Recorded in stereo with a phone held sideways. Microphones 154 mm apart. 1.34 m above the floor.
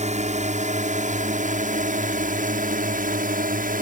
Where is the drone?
55° right (ahead or behind); by 3.8 s 75° right (ahead or behind).